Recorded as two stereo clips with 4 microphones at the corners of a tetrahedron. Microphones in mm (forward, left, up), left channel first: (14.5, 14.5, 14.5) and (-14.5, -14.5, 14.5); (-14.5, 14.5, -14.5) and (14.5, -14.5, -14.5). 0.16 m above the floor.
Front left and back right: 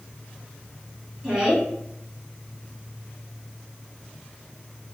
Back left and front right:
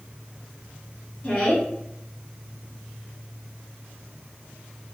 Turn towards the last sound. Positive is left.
turn(degrees=160)